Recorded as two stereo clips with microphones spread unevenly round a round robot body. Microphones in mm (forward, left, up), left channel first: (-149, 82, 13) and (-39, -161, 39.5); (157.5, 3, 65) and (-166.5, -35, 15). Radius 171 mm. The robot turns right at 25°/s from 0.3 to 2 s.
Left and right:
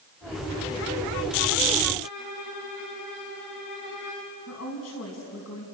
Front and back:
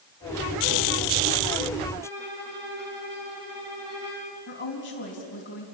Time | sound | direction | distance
2.0 | a violin | 105° left | 7.5 m
4.5 | a woman speaking | 65° left | 4 m